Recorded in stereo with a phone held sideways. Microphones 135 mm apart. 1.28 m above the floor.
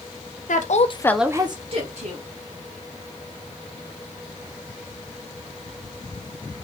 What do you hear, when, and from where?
0.5 s a woman speaking: 70° left (ahead or behind), 0.9 m; by 2.2 s 55° right (ahead or behind), 1.6 m